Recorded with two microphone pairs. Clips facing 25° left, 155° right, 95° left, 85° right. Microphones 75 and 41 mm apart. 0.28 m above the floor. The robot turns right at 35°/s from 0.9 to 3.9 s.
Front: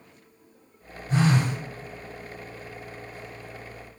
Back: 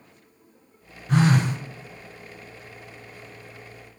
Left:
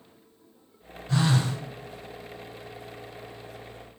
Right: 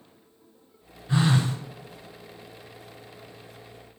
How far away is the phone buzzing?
About 0.9 m.